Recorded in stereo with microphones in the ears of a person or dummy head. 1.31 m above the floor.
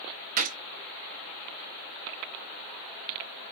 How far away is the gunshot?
About 0.6 m.